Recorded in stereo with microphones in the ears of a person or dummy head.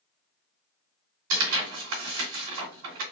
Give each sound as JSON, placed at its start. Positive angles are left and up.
{"t": 1.3, "sound": "tearing paper", "side_deg": -65, "distance_m": 2.0}